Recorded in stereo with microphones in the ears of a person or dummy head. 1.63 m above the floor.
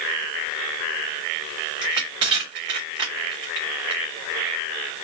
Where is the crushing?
30° right (ahead or behind), 1.5 m.